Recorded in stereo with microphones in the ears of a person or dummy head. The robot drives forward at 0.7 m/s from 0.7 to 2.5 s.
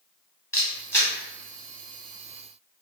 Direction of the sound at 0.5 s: 15° left (ahead or behind).